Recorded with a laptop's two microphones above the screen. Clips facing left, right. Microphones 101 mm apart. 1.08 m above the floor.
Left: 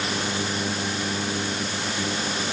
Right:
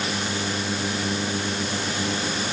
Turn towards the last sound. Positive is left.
No sound to turn to.